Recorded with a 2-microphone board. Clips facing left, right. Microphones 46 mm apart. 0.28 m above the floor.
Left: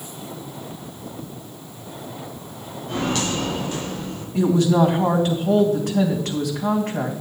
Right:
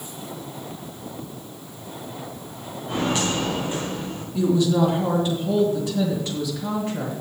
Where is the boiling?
I don't hear boiling.